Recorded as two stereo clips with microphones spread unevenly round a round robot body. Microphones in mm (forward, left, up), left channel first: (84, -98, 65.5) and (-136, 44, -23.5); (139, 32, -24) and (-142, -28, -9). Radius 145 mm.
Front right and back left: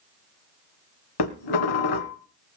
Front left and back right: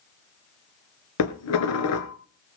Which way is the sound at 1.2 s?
25° right.